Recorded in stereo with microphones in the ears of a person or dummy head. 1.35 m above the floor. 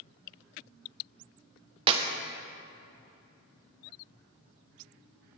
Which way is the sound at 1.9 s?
30° right (ahead or behind).